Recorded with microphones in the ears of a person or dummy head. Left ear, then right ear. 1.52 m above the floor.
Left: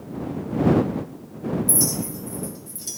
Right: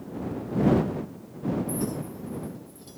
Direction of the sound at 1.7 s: 50° left (ahead or behind).